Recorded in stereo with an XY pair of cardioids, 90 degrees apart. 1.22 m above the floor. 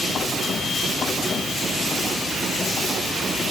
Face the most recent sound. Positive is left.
No sound to turn to.